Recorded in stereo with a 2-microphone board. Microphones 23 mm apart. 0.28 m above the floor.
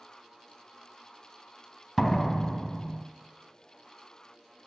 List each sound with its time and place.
2.0 s a door slam: 5° left (ahead or behind), 1.6 m